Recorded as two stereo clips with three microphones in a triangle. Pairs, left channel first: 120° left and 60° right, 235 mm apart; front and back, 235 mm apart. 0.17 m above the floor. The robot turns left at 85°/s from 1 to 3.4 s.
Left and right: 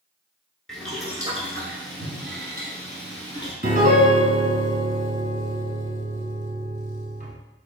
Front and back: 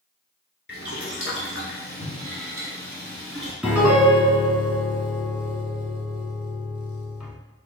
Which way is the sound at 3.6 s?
95° right.